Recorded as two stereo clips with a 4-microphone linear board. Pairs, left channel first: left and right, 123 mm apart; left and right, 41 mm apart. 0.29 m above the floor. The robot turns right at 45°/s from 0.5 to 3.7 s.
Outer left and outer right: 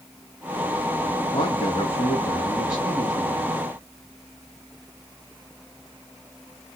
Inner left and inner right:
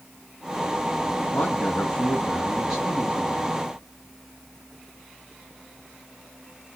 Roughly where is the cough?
I don't hear a cough.